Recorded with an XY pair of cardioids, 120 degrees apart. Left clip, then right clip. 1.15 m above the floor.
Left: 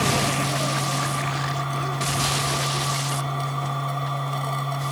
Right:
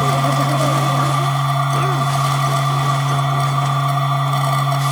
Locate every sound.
0.0 s a machine running: 50° right